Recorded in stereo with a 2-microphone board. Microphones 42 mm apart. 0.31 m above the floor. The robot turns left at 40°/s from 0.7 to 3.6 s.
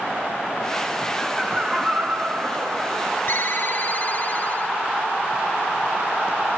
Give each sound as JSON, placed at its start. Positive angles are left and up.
{"t": 1.2, "sound": "laughter", "azimuth_deg": 5, "distance_m": 2.5}
{"t": 3.3, "sound": "a ringtone", "side_deg": 60, "distance_m": 1.1}